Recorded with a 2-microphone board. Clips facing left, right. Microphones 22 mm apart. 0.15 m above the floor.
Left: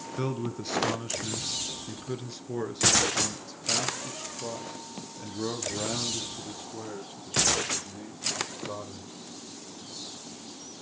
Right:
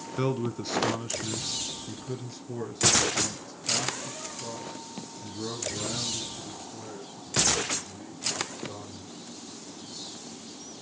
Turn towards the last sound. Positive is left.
turn(degrees=50)  # may be behind; listen again after turning